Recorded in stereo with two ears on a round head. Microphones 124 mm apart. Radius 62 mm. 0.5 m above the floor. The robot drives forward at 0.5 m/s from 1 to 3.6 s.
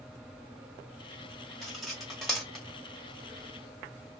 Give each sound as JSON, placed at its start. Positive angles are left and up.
{"t": 1.6, "sound": "cutlery clinking", "side_deg": 0, "distance_m": 1.2}